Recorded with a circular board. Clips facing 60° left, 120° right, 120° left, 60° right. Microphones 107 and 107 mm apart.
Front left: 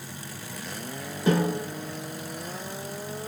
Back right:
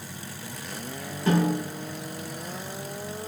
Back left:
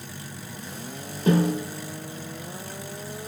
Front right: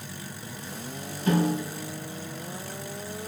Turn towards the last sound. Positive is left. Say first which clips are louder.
# even, back left 3 dB
turn(degrees=135)